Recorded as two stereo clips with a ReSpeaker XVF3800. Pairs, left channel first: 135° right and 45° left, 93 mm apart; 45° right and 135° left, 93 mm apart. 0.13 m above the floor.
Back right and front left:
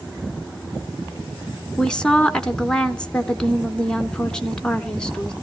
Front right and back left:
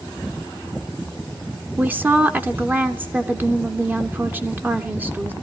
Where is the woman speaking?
160° left, 1.3 m.